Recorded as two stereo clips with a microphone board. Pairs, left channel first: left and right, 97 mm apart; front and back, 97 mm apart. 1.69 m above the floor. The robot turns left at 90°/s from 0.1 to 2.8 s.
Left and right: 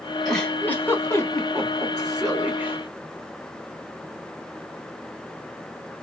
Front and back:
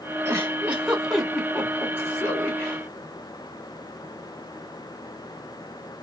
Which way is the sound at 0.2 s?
165° left.